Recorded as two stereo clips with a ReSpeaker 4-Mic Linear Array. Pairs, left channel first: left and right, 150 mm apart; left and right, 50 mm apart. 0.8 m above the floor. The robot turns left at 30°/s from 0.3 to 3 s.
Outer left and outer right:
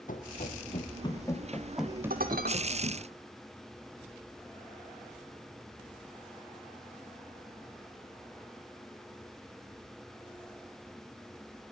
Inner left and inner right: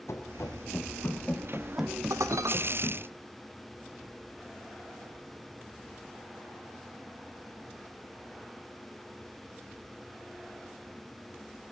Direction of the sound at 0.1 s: 65° left (ahead or behind).